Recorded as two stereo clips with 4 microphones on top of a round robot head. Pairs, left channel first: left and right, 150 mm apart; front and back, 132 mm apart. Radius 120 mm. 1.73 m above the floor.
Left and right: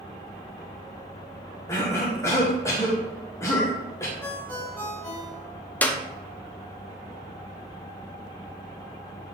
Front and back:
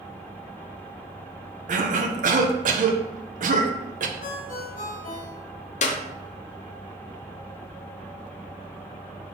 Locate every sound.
1.7 s a cough: 170° left, 1.2 m
4.2 s a ringtone: 10° left, 2 m
5.8 s a clap: 15° left, 0.7 m